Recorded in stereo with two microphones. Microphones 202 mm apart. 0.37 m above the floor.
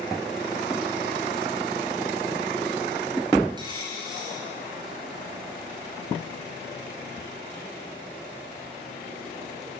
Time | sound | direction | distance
3.6 | a dropped coin | 25° right (ahead or behind) | 3.5 m